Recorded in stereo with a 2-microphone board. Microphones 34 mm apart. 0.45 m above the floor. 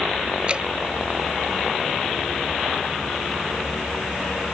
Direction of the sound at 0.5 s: 30° right (ahead or behind).